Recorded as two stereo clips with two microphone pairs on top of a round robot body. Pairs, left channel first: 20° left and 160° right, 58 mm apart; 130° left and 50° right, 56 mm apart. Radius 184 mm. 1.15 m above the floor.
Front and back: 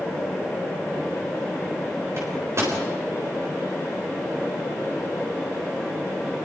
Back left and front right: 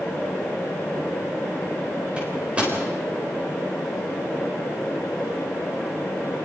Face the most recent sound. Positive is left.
turn(degrees=-115)